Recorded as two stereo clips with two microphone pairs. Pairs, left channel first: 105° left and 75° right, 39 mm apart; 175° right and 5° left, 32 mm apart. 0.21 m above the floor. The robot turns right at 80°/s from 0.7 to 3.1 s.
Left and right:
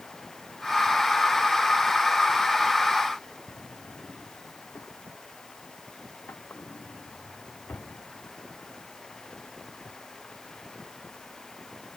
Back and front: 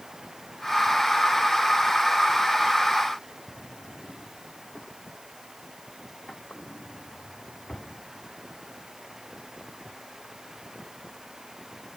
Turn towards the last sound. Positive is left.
turn(degrees=120)